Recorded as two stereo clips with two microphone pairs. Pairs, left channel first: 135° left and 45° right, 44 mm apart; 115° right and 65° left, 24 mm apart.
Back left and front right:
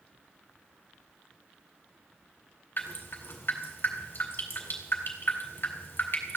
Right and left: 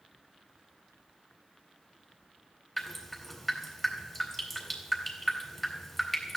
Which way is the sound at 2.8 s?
165° left.